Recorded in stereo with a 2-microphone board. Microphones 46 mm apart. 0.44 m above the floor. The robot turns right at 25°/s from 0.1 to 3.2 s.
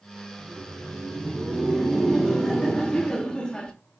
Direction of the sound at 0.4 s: 45° right.